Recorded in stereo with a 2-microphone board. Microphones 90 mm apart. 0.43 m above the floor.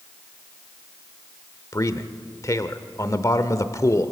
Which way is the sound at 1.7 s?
35° left (ahead or behind).